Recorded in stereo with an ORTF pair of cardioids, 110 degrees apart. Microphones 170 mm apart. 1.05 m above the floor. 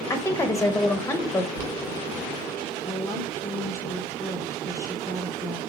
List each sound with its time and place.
0.1 s a woman speaking: 15° left, 0.9 m
1.6 s boiling: 65° right, 1.3 m
2.9 s a woman speaking: 15° left, 0.7 m